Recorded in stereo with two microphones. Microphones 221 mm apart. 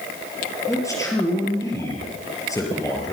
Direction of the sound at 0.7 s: 15° left (ahead or behind).